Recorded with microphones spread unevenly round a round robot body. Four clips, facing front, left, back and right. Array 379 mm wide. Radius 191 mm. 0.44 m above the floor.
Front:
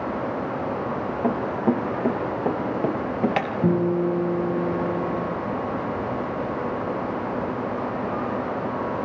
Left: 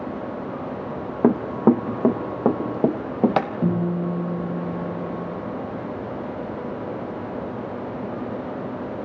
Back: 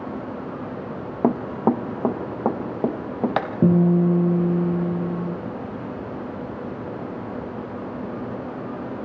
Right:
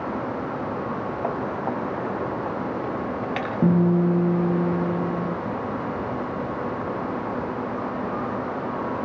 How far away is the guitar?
About 8.5 m.